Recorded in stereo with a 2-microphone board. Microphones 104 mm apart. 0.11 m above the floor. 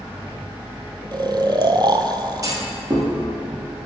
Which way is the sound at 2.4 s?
35° right (ahead or behind).